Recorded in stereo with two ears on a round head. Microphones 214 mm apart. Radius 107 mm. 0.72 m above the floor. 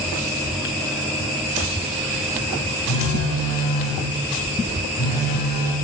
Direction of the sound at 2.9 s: 85° left.